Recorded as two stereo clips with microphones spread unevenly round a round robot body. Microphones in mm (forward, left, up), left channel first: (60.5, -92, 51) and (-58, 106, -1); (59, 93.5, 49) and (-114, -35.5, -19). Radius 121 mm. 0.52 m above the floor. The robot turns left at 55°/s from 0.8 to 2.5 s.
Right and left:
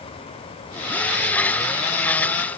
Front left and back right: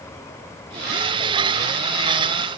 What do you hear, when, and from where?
Only background noise.